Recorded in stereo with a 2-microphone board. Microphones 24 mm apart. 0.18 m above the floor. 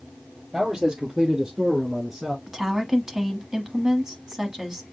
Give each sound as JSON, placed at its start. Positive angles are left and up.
{"t": 0.5, "sound": "a man speaking", "side_deg": -20, "distance_m": 4.0}
{"t": 2.5, "sound": "a woman speaking", "side_deg": -25, "distance_m": 1.1}